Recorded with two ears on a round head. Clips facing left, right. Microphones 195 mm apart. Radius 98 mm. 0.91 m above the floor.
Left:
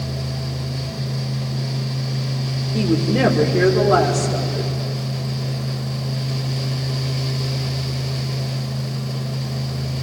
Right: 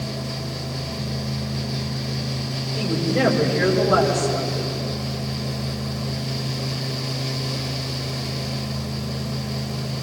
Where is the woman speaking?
55° left (ahead or behind), 3 m.